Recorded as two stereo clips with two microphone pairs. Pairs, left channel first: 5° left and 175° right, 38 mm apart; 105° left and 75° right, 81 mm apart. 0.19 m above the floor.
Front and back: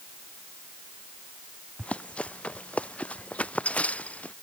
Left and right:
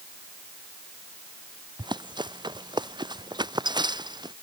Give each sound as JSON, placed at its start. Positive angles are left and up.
{"t": 1.8, "sound": "running footsteps", "azimuth_deg": -55}